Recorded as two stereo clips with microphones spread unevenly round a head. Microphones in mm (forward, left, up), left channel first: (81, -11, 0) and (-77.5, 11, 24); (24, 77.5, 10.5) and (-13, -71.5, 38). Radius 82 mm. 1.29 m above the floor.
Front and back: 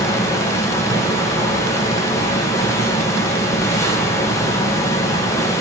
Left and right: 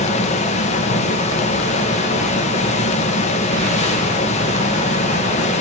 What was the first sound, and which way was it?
A fan, 55° left.